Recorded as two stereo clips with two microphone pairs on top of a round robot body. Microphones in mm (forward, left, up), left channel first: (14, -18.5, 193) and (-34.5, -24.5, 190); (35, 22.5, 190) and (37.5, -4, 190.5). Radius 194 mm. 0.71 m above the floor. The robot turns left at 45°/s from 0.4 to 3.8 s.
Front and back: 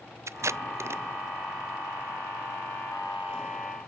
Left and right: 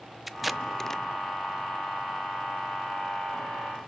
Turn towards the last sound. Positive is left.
turn(degrees=40)